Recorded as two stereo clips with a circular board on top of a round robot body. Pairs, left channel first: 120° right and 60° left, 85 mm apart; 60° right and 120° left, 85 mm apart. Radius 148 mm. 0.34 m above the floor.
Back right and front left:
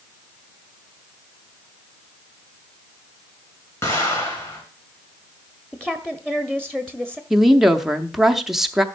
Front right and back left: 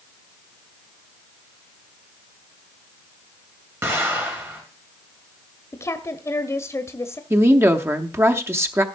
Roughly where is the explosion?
Behind.